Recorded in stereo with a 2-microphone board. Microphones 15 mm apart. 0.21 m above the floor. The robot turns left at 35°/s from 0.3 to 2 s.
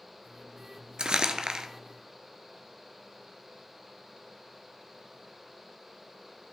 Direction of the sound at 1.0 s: 75° right (ahead or behind).